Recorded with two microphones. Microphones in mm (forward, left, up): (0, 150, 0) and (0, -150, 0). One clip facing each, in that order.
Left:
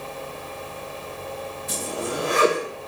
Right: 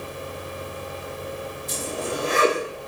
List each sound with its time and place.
1.7 s a zipper: 85° left, 4.5 m